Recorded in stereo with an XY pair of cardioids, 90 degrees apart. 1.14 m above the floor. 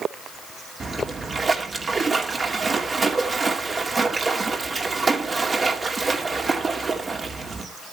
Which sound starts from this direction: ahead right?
A splash, at 0.8 s.